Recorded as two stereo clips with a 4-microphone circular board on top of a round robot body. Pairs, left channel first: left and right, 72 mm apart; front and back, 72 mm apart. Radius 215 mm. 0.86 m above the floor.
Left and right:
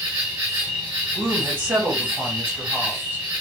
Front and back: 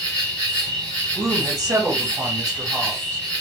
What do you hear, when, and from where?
0.0 s an insect: 50° right, 0.8 m
1.1 s a woman speaking: 150° right, 1.5 m